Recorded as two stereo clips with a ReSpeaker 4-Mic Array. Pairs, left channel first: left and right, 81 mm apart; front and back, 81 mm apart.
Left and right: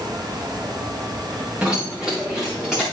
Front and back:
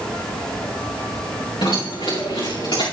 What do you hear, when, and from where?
1.6 s keys jangling: 15° right, 6.5 m; by 2.8 s 5° right, 7.5 m